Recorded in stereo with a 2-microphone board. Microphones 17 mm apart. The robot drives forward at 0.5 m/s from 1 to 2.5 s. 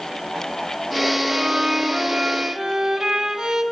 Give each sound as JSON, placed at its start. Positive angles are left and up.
{"t": 1.3, "sound": "a violin", "side_deg": -50, "distance_m": 1.2}